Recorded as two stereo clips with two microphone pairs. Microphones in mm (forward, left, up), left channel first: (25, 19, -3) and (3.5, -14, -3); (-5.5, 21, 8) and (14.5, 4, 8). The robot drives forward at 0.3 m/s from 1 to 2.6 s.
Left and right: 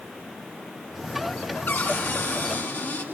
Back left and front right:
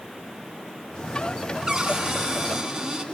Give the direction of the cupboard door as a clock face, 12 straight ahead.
11 o'clock.